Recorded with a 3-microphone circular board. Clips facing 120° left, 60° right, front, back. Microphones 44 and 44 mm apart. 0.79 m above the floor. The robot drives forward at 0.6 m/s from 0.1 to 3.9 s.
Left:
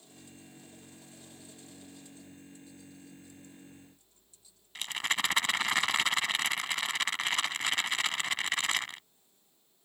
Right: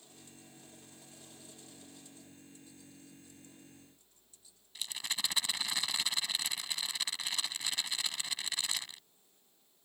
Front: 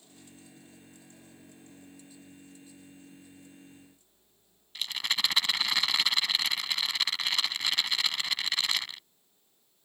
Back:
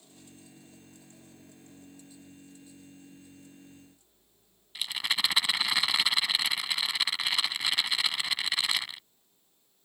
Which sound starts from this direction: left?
A rattle, at 4.8 s.